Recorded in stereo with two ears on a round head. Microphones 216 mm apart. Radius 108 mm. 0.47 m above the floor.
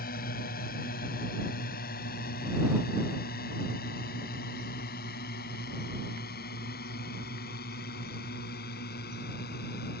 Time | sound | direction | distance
0.0 | a drone | 40° left (ahead or behind) | ?